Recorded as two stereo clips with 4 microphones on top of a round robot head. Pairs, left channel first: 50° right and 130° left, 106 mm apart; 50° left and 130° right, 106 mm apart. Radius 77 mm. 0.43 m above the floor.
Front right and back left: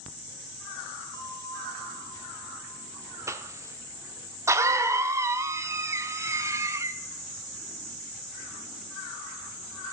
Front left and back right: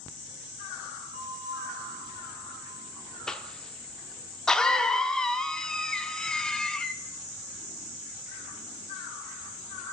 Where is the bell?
105° right, 3.5 m.